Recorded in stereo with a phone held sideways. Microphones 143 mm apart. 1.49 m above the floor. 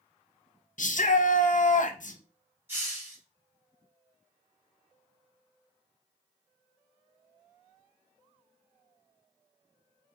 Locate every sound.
0.8 s a shout: 65° left (ahead or behind), 0.5 m
2.7 s a hiss: 15° right (ahead or behind), 1.3 m